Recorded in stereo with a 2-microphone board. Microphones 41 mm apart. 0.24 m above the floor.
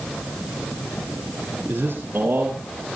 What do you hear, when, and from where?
1.7 s a man speaking: 65° right (ahead or behind), 3 m